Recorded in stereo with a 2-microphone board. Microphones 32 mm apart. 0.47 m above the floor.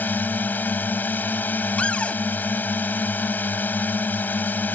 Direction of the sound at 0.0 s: 70° left (ahead or behind).